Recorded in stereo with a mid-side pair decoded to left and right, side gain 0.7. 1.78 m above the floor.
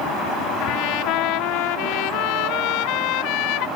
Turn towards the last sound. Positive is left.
turn(degrees=70)